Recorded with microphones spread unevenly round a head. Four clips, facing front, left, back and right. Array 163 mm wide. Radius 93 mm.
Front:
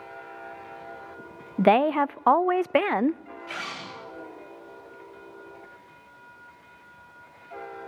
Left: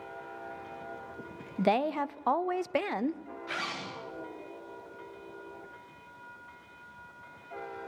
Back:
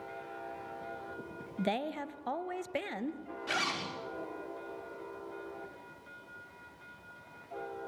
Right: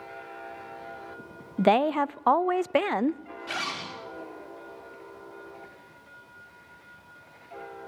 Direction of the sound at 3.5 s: 155° right.